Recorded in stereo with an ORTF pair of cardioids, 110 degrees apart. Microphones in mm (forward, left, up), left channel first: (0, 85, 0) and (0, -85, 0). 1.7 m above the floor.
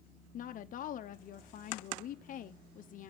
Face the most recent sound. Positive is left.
turn(degrees=55)